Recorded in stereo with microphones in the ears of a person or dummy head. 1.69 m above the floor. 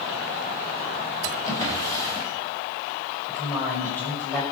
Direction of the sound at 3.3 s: 20° left (ahead or behind).